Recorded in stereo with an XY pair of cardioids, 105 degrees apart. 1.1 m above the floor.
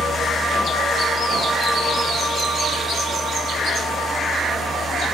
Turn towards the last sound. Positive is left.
turn(degrees=-45)